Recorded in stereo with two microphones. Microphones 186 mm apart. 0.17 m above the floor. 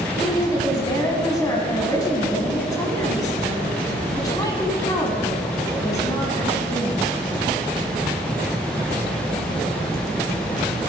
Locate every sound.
0.2 s a woman speaking: 20° left (ahead or behind), 1.2 m